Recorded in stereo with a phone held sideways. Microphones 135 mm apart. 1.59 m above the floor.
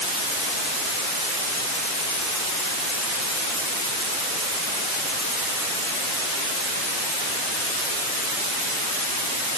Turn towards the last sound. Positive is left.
No sound to turn to.